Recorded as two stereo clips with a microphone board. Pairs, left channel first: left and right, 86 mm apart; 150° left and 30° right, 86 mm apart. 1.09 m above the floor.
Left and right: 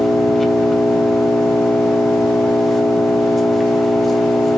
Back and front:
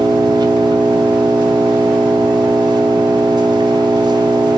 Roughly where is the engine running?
Ahead.